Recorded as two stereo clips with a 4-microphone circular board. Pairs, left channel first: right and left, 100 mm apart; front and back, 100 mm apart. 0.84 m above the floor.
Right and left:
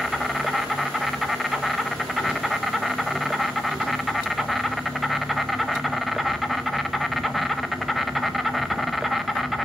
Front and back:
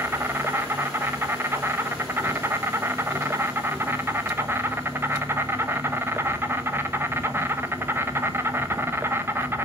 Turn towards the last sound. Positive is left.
turn(degrees=180)